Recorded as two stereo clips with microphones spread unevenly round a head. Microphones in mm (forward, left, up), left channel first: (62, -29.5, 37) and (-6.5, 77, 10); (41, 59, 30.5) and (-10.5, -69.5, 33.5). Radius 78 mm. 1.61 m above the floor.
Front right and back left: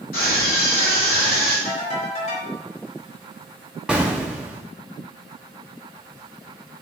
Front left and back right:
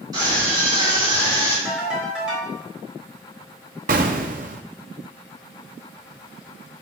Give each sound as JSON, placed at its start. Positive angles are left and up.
{"t": 0.1, "sound": "a scream", "azimuth_deg": -50, "distance_m": 4.0}
{"t": 1.6, "sound": "a ringtone", "azimuth_deg": -30, "distance_m": 3.5}
{"t": 3.9, "sound": "an explosion", "azimuth_deg": -145, "distance_m": 0.6}